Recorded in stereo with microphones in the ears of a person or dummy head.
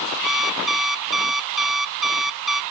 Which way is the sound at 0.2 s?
Centre (ahead or behind).